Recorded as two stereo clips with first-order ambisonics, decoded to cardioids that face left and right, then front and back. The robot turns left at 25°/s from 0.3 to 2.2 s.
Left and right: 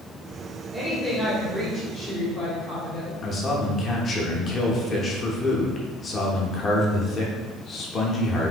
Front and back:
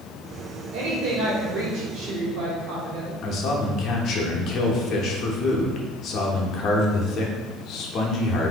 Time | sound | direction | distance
0.7 | a woman speaking | straight behind | 1.5 m
3.2 | a man speaking | 35° left | 0.8 m